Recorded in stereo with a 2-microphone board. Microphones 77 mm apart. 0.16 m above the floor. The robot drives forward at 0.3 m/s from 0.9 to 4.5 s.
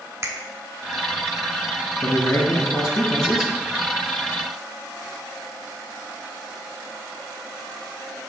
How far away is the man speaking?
About 2 m.